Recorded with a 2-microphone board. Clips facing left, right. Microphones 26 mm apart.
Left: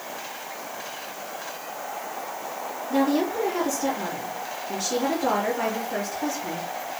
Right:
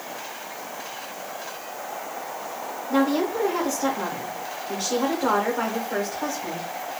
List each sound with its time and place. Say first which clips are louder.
2.9 s a woman speaking: right 1 dB; 35° right (ahead or behind), 1.3 m